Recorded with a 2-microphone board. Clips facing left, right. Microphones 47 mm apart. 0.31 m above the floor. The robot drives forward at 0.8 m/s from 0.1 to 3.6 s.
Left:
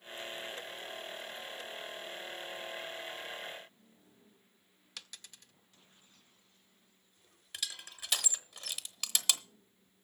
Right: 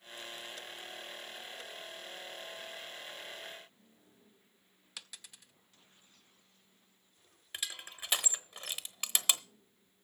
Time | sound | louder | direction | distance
5.0 | a dropped coin | even | 5° right (ahead or behind) | 0.5 m
7.5 | crushing | right 1 dB | 30° right (ahead or behind) | 0.9 m